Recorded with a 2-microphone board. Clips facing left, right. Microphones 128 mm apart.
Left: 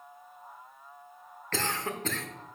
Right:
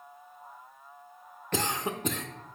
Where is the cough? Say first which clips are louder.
Right 2 dB; 15° right (ahead or behind), 0.8 m.